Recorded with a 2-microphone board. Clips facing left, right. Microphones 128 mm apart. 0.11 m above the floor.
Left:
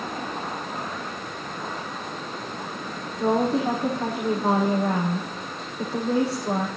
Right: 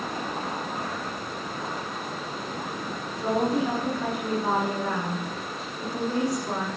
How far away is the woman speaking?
About 5.5 m.